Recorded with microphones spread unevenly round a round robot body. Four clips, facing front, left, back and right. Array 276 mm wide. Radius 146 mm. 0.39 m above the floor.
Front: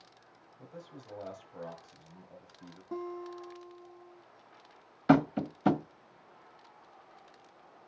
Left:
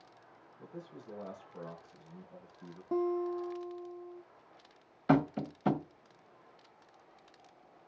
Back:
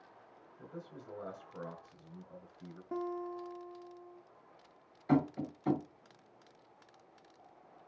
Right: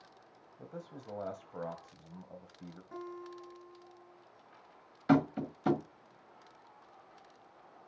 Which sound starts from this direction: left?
A guitar, at 2.9 s.